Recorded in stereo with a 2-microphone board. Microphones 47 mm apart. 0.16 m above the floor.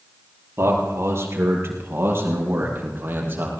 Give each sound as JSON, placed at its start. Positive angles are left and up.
{"t": 0.6, "sound": "a man speaking", "side_deg": -65, "distance_m": 4.5}